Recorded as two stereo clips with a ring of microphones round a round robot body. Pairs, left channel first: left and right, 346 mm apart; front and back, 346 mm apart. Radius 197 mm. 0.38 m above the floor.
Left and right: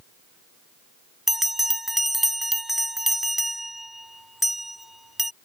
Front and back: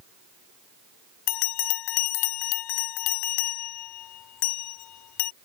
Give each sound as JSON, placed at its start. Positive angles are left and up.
{"t": 1.3, "sound": "a bell", "azimuth_deg": 0}